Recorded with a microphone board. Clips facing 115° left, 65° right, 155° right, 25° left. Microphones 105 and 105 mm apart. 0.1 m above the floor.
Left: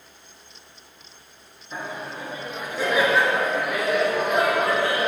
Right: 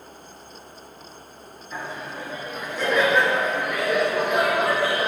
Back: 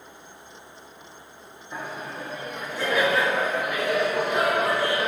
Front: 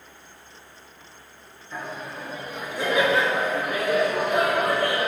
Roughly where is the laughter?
Behind left.